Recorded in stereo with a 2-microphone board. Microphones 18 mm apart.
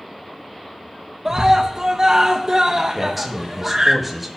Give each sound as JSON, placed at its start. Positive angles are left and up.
{"t": 1.2, "sound": "a scream", "side_deg": -35, "distance_m": 1.1}
{"t": 3.0, "sound": "a man speaking", "side_deg": -5, "distance_m": 1.7}